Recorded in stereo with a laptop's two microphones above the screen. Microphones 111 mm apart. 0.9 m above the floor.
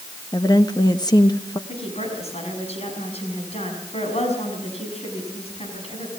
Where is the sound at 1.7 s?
70° left (ahead or behind), 6 m.